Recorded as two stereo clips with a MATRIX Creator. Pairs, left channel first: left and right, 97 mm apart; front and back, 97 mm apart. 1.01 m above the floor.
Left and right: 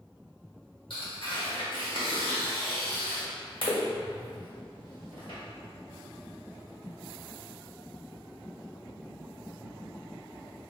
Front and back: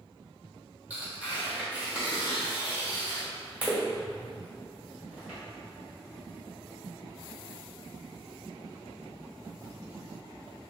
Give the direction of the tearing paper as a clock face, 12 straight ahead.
8 o'clock.